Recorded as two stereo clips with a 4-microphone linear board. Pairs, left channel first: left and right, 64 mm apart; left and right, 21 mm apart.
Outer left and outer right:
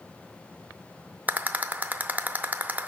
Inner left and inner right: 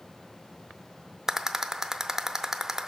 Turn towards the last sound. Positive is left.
turn(degrees=-25)  # may be behind; listen again after turning